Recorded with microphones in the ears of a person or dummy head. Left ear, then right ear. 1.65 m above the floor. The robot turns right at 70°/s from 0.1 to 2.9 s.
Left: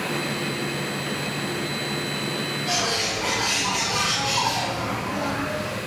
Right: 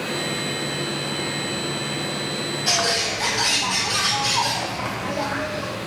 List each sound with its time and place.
2.7 s a bird: 65° right (ahead or behind), 1.4 m; by 5.8 s 70° right (ahead or behind), 1.4 m